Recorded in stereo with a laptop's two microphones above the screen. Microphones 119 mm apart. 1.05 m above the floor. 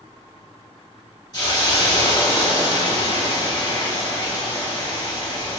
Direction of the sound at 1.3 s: 35° left (ahead or behind).